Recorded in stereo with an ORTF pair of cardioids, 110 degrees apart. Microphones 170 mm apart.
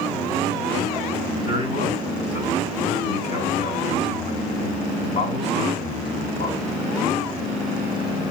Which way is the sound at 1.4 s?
50° left.